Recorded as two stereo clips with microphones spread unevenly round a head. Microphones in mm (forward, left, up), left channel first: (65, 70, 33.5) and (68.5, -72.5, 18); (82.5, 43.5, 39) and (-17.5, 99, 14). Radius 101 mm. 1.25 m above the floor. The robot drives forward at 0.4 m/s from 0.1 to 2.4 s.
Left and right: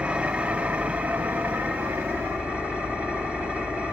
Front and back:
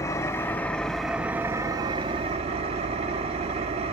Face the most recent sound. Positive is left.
turn(degrees=180)